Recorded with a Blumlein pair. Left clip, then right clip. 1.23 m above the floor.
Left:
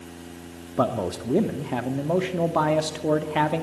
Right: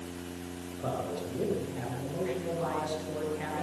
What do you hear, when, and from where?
0.8 s a man speaking: 45° left, 2 m